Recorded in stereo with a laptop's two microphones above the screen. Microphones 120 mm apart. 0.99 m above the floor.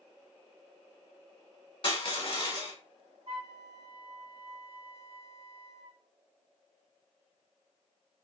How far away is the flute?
About 1.4 m.